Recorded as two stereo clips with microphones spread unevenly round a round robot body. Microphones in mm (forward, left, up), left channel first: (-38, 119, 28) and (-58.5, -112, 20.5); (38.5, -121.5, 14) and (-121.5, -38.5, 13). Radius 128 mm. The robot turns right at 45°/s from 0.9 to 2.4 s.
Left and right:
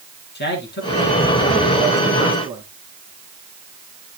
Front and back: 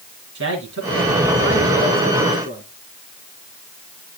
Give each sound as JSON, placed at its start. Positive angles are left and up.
{"t": 0.3, "sound": "a man speaking", "azimuth_deg": 130, "distance_m": 3.5}